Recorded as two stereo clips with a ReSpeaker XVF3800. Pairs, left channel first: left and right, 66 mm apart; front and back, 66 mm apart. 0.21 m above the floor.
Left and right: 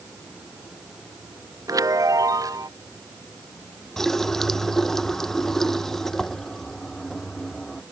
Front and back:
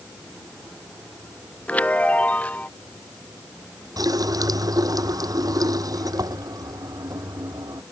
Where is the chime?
65° right.